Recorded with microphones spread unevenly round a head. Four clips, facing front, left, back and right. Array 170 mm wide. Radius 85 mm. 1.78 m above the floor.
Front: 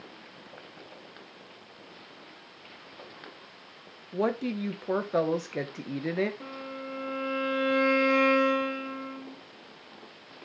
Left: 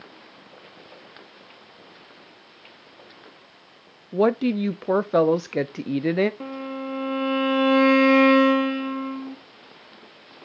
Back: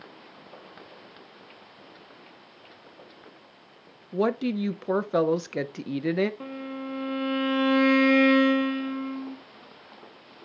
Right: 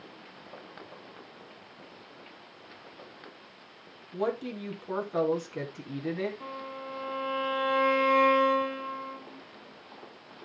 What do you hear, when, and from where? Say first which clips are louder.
4.1 s a woman speaking: left 11 dB, back 3 dB; 90° left, 0.7 m
6.4 s a violin: left 8 dB, back 4 dB; 105° left, 1.3 m